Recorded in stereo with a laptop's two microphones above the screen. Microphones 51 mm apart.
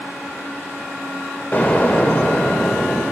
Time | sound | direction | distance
1.5 | an explosion | 35° left (ahead or behind) | 3.5 m